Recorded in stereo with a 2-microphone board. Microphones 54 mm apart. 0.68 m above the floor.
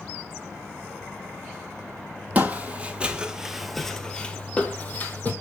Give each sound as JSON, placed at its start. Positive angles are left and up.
{"t": 2.4, "sound": "footsteps", "side_deg": -30, "distance_m": 1.1}